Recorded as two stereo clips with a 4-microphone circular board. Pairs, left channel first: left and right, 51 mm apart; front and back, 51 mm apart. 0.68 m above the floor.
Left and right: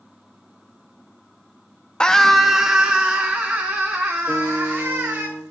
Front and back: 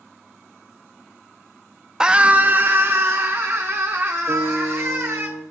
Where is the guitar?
25° left, 5.5 m.